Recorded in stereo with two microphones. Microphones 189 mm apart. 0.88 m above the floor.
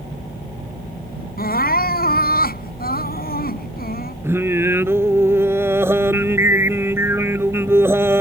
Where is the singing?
15° right (ahead or behind).